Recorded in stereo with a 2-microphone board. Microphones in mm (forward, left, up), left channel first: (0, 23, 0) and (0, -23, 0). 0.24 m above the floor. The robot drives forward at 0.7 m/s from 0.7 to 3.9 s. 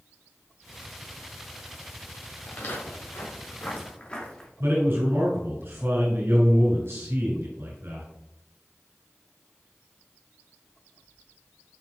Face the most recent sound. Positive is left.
turn(degrees=-65)  # may be behind; listen again after turning